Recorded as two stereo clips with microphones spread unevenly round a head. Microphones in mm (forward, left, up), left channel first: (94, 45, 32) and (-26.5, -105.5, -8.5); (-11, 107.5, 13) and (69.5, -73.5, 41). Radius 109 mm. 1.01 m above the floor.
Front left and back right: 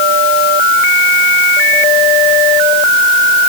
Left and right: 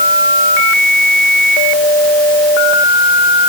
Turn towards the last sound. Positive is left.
No sound to turn to.